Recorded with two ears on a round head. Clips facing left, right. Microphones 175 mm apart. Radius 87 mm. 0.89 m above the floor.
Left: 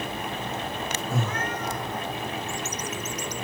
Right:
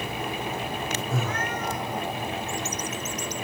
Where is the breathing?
25° left (ahead or behind), 2.5 m.